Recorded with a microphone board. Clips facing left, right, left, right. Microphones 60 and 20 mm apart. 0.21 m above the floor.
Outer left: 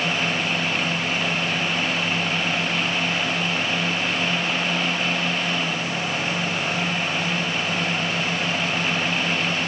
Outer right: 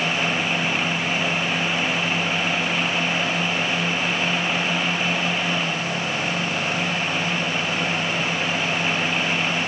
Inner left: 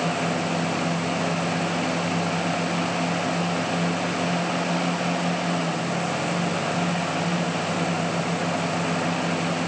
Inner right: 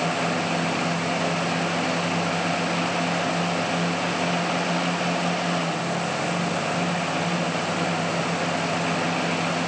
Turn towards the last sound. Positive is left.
No sound to turn to.